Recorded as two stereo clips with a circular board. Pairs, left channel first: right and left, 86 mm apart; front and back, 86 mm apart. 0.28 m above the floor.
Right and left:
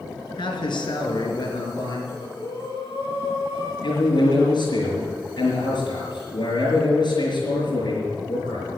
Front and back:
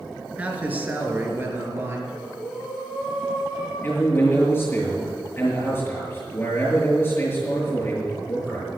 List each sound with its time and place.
0.4 s a man speaking: 105° right, 3 m; by 2.0 s 120° right, 4 m
2.1 s breathing: 100° right, 5 m
3.8 s a man speaking: 65° right, 6 m